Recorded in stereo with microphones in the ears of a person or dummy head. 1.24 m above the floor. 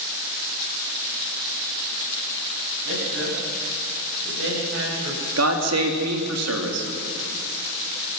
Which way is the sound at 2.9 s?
70° right (ahead or behind).